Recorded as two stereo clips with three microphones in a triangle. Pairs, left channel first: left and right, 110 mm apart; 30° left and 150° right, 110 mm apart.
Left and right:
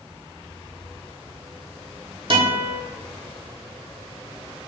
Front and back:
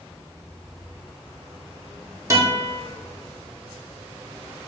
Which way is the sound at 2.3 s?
100° right.